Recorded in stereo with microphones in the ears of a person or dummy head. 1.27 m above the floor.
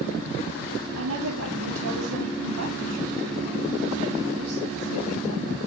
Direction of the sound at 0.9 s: 85° right.